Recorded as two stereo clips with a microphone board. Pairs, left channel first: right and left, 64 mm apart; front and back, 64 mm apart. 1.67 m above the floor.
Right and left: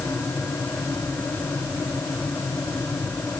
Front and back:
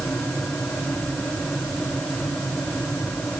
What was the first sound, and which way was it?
Only background noise.